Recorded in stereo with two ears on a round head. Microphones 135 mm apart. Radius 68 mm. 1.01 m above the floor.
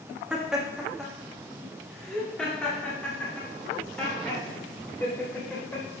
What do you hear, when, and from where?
0.3 s laughter: 5° right (ahead or behind), 1.8 m; by 5.8 s 10° left (ahead or behind), 5 m